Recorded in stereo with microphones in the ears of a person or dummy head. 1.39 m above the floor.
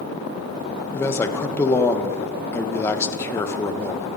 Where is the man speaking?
15° left (ahead or behind), 1.3 m.